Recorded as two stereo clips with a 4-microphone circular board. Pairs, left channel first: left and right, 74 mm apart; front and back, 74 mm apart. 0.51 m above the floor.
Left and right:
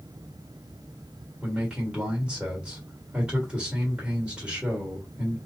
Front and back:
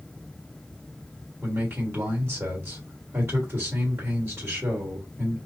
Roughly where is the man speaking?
Behind right.